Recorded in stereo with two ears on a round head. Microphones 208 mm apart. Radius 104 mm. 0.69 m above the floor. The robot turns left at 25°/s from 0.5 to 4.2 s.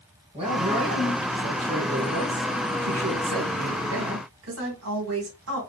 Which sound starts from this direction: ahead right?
A man speaking, at 0.3 s.